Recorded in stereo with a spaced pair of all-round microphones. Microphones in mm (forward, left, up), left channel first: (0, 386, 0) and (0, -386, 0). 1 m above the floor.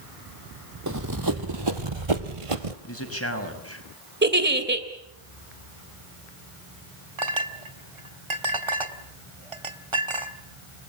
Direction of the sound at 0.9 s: 20° right (ahead or behind).